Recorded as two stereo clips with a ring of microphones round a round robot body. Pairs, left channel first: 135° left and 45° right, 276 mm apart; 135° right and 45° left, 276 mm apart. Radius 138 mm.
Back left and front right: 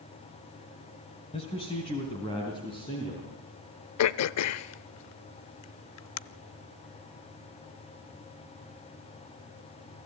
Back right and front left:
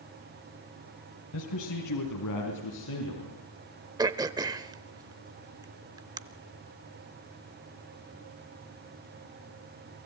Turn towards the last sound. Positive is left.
turn(degrees=120)